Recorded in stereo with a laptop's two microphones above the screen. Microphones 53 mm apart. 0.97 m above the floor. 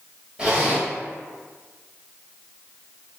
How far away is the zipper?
About 1.3 m.